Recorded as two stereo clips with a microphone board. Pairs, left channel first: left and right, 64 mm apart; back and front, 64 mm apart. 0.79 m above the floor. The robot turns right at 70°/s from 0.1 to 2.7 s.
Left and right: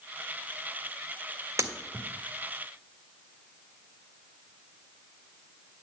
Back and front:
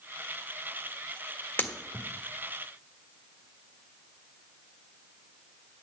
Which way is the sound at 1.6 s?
120° right.